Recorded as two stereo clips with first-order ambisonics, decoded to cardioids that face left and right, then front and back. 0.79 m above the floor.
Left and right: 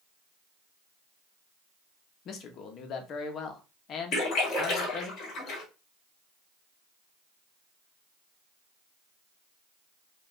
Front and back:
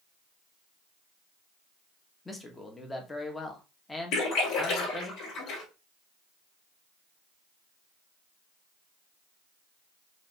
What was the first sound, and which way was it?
A man speaking, 75° left.